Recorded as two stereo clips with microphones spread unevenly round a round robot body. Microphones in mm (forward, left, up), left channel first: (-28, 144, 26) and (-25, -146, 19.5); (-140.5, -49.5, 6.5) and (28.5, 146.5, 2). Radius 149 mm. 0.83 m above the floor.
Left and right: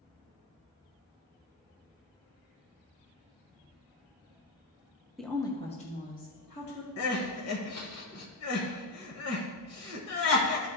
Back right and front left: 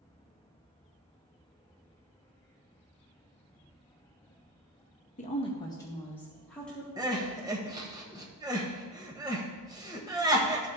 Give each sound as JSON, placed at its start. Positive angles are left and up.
{"t": 5.2, "sound": "a woman speaking", "azimuth_deg": -175, "distance_m": 0.9}
{"t": 7.0, "sound": "crying", "azimuth_deg": 125, "distance_m": 1.3}